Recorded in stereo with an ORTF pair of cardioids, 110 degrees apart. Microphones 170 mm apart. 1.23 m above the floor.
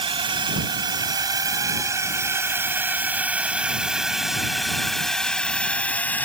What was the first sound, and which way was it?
A drone, 30° right.